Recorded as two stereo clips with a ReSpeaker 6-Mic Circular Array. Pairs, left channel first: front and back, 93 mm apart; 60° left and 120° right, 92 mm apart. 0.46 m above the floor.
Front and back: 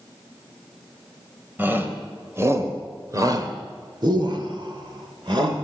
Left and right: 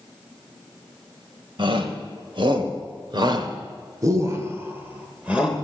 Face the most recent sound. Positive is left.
turn(degrees=155)